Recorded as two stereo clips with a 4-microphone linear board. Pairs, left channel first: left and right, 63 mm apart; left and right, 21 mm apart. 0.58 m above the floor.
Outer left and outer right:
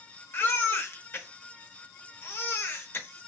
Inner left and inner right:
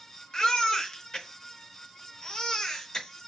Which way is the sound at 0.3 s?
40° left (ahead or behind).